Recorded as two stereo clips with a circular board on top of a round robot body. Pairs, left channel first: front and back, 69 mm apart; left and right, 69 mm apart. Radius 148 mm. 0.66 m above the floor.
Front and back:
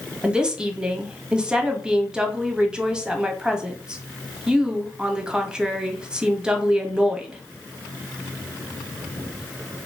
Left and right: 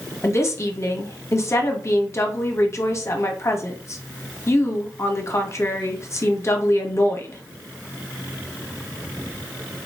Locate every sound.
0.2 s a woman speaking: 110° left, 0.9 m